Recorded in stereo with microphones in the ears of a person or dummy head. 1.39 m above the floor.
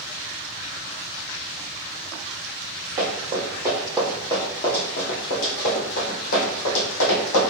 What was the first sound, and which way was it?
Running footsteps, 30° right (ahead or behind).